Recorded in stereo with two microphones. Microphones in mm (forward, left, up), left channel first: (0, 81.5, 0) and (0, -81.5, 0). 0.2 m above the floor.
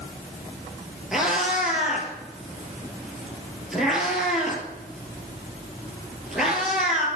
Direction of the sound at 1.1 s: 5° right (ahead or behind).